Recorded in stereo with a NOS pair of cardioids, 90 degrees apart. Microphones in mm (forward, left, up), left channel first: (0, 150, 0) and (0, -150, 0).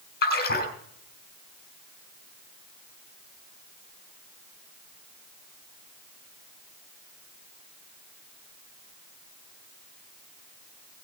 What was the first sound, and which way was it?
A splash, 35° left.